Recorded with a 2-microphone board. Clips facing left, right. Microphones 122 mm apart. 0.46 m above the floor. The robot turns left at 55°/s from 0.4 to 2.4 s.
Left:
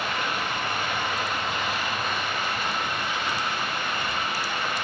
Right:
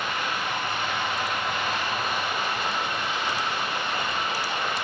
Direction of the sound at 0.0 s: 85° left.